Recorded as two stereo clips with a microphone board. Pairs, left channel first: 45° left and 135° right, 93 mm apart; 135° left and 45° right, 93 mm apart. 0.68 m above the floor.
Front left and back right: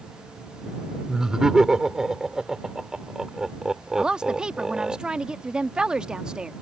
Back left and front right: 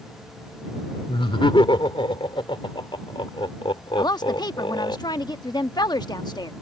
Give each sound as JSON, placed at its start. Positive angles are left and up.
{"t": 1.1, "sound": "laughter", "azimuth_deg": 145}
{"t": 4.0, "sound": "a woman speaking", "azimuth_deg": 150}